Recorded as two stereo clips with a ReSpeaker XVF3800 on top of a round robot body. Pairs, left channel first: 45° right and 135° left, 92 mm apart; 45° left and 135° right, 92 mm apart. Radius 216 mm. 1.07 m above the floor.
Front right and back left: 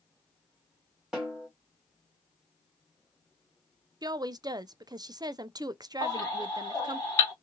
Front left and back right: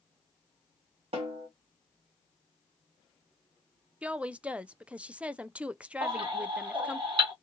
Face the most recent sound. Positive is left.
turn(degrees=-95)